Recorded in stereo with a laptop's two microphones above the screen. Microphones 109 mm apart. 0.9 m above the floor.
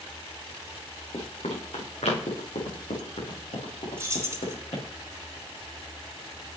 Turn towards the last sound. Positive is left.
turn(degrees=-25)  # may be behind; listen again after turning